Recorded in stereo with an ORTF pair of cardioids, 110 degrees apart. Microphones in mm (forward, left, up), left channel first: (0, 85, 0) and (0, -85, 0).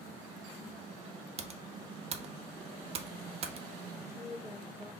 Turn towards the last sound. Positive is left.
turn(degrees=-15)